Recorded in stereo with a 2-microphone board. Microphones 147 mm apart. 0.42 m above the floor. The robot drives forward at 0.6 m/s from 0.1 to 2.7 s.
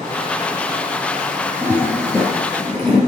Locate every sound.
1.6 s a toilet flushing: 15° left (ahead or behind), 4.5 m; by 3.0 s 10° left (ahead or behind), 5 m